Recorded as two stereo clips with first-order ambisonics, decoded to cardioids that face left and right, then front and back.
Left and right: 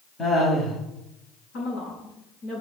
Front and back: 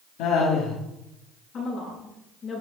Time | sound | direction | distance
0.2 | laughter | 25° left | 3.5 m
1.5 | a woman speaking | 55° left | 7 m